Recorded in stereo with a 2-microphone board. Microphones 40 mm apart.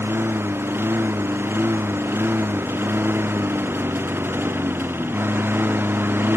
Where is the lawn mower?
80° right; by 6.4 s 65° right (ahead or behind).